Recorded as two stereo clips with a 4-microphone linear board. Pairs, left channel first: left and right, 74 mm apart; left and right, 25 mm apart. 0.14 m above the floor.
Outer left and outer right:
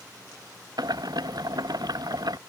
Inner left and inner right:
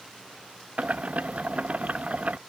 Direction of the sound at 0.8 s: 65° right (ahead or behind).